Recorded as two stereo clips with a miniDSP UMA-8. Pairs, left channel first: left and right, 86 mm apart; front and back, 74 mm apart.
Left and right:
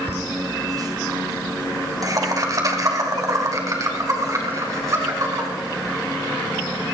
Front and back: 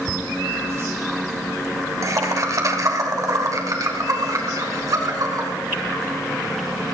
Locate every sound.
0.1 s laughter: 120° right, 1.3 m; by 5.5 s 140° right, 5 m